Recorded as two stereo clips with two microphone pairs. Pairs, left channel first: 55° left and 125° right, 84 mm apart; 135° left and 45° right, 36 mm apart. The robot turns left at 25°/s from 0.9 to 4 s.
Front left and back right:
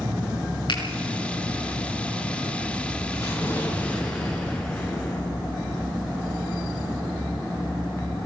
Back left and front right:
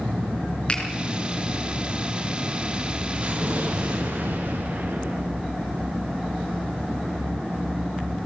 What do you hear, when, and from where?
0.7 s a finger snap: 75° left, 5 m
3.1 s an explosion: straight ahead, 5.5 m; by 5.2 s 25° right, 5.5 m